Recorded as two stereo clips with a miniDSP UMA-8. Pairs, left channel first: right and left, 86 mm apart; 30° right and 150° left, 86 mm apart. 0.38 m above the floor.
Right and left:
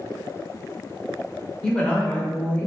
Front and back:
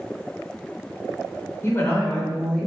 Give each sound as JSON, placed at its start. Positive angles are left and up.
{"t": 1.6, "sound": "a woman speaking", "azimuth_deg": -10, "distance_m": 1.1}